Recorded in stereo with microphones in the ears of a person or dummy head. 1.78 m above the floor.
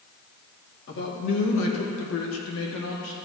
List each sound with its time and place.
0.9 s a man speaking: 60° left (ahead or behind), 2.5 m; by 3.1 s 70° left (ahead or behind), 2 m